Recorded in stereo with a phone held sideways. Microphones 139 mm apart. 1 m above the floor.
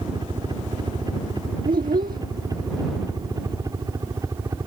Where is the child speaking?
85° right.